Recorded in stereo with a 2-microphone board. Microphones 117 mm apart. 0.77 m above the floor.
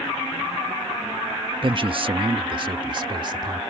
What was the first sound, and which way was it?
A man speaking, 45° right (ahead or behind).